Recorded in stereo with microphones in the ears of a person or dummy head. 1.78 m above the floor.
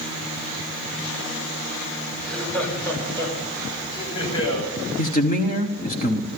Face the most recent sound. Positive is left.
turn(degrees=45)  # may be behind; listen again after turning